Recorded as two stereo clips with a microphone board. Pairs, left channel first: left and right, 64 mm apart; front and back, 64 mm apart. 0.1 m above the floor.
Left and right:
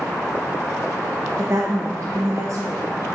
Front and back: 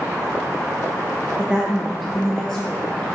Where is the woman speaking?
115° right, 1.4 m; by 3.1 s 60° right, 1.9 m.